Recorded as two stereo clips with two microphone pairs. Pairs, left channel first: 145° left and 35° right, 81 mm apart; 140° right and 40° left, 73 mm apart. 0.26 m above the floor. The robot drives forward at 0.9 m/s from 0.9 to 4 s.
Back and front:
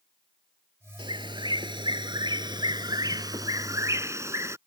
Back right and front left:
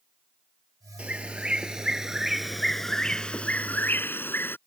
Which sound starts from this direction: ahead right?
A bird, at 1.0 s.